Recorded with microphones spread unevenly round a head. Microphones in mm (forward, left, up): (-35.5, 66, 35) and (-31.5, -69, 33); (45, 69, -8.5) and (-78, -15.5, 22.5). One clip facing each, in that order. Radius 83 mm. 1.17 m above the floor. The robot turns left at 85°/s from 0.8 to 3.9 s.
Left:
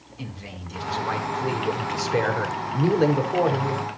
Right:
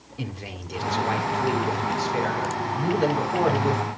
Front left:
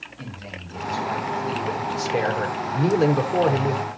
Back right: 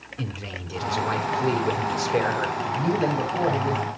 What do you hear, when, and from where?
0.2 s a man speaking: 120° right, 4 m; by 3.8 s 20° right, 4 m